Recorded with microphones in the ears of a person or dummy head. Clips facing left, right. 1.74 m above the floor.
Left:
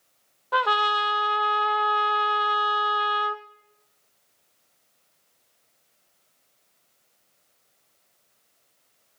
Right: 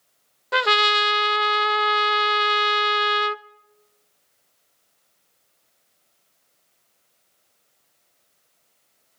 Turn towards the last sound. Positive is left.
turn(degrees=-30)  # may be behind; listen again after turning